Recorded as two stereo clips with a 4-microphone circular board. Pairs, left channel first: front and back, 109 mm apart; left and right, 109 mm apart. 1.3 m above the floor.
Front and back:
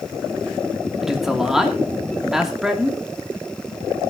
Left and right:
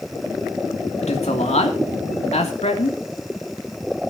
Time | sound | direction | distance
1.0 | a man speaking | 95° left | 3 m